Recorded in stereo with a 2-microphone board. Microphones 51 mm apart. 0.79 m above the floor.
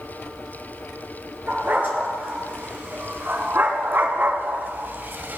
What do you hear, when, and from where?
1.5 s a dog barking: 45° right (ahead or behind), 3 m; by 5.4 s 40° right (ahead or behind), 0.8 m